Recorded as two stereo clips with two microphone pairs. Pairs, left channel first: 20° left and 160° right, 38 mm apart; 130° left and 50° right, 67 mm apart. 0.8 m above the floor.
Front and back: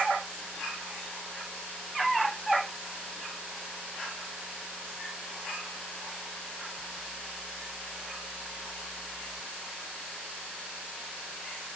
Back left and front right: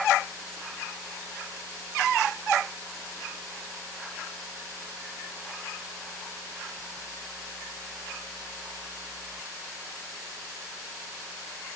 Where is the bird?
I don't hear a bird.